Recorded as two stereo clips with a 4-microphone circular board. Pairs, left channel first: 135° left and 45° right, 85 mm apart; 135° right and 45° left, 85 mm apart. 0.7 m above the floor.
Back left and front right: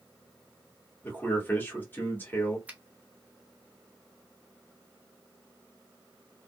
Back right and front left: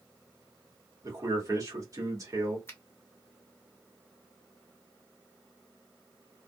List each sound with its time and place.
1.0 s a man speaking: 75° left, 1.6 m
2.7 s a finger snap: 105° right, 0.8 m